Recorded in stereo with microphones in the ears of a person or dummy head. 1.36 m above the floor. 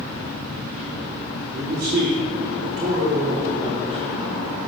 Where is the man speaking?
65° right (ahead or behind), 3 m; by 4.0 s 35° right (ahead or behind), 3 m.